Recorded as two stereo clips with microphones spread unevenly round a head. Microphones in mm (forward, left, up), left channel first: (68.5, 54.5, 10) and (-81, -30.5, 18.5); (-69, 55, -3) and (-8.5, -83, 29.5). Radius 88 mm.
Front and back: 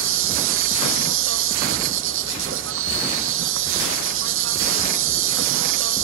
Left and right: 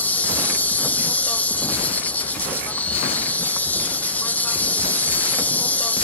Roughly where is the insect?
Behind.